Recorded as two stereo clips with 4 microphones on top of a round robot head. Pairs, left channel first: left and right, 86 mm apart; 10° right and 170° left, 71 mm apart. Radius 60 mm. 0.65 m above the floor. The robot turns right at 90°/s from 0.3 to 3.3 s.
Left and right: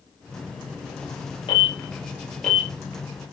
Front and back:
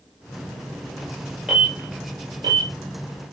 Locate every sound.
1.5 s an alarm: 85° left, 6 m; by 2.7 s 165° right, 6 m